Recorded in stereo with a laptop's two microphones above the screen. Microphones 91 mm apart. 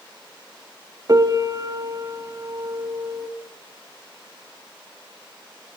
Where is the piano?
45° right (ahead or behind), 1.7 m.